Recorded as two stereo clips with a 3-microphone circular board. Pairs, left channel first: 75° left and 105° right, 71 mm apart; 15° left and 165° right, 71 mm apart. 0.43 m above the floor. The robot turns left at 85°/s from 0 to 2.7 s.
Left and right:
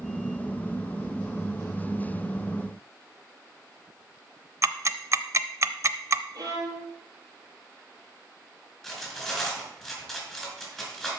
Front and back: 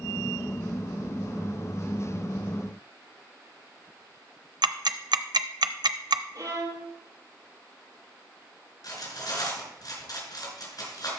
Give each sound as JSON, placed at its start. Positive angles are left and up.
{"t": 4.6, "sound": "ticking", "azimuth_deg": -150, "distance_m": 0.5}
{"t": 6.3, "sound": "a violin", "azimuth_deg": -140, "distance_m": 3.0}
{"t": 8.8, "sound": "cutlery clinking", "azimuth_deg": -10, "distance_m": 3.5}